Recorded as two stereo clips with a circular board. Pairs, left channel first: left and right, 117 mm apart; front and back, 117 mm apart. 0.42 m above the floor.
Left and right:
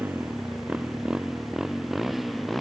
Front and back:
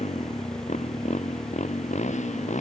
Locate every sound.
0.0 s a motorcycle: 15° right; by 2.6 s straight ahead